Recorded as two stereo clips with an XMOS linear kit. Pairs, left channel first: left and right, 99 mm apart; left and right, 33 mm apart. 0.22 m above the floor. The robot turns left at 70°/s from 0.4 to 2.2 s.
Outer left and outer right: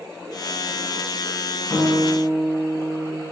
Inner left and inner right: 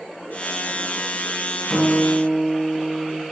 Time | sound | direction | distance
1.7 | a guitar | 100° left | 1.6 m